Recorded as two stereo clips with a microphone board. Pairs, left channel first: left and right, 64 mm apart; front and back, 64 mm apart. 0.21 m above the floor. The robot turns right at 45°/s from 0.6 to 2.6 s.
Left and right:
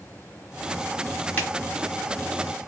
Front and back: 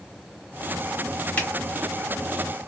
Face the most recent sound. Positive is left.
turn(degrees=110)